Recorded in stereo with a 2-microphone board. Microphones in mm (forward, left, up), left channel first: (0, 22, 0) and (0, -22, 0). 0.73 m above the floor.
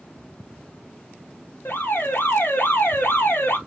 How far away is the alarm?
About 3 m.